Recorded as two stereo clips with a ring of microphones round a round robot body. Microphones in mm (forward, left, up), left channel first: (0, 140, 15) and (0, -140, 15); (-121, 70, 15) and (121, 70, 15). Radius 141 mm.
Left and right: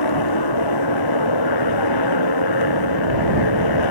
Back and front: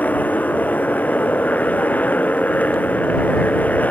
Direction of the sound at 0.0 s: 95° left.